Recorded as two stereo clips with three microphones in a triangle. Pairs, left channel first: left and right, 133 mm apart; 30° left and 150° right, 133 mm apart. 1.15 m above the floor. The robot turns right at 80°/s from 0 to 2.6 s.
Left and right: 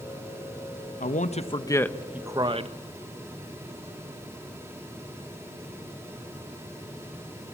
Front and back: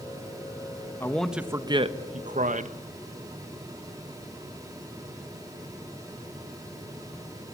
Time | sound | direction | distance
1.0 | a man speaking | 100° left | 1.1 m